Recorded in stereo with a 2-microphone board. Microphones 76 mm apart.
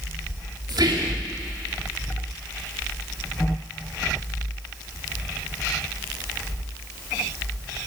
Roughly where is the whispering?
Right.